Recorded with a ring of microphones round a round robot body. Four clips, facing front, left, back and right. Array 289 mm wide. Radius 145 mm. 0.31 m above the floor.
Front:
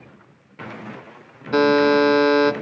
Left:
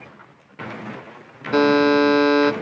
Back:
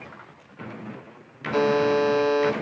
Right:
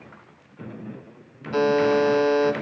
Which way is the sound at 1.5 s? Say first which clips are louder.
Left 4 dB, front 5 dB; 45° left.